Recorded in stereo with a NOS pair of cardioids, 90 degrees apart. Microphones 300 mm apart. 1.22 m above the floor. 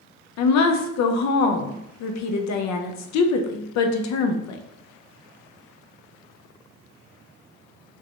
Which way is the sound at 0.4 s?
70° left.